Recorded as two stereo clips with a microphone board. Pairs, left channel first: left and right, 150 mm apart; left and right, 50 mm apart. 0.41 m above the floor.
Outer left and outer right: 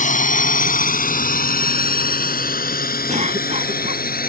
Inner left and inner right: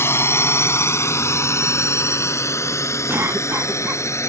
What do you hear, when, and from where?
0.0 s a drone: 60° left (ahead or behind); by 4.3 s 80° left
3.1 s a cough: 55° right (ahead or behind)